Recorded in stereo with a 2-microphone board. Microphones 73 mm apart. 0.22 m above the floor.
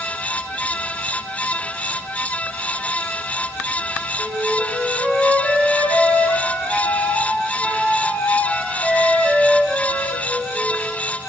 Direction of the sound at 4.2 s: Centre (ahead or behind).